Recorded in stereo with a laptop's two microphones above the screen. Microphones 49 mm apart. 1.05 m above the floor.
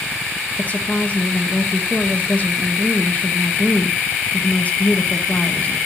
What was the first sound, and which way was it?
A woman speaking, 35° left (ahead or behind).